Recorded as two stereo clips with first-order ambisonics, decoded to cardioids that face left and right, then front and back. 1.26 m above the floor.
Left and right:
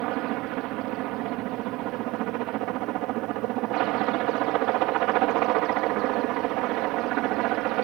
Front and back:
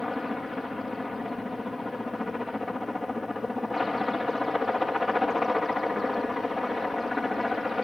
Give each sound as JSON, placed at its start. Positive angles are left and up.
{"t": 0.0, "sound": "a helicopter", "azimuth_deg": -80}